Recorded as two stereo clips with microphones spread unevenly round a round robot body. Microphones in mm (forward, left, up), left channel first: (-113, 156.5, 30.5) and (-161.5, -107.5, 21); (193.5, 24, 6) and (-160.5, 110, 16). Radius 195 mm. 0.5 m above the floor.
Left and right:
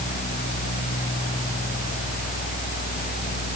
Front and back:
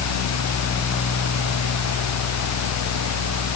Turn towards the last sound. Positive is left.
No sound to turn to.